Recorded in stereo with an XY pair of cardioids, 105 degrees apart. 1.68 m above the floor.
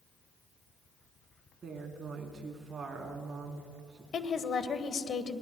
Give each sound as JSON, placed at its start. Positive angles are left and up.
{"t": 1.6, "sound": "a woman speaking", "azimuth_deg": -40, "distance_m": 3.5}
{"t": 4.1, "sound": "a woman speaking", "azimuth_deg": 50, "distance_m": 1.2}